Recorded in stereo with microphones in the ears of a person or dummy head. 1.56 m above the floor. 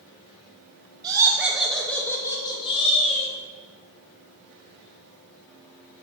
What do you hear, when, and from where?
1.0 s laughter: 20° right (ahead or behind), 1.1 m; by 3.3 s 40° left (ahead or behind), 1.9 m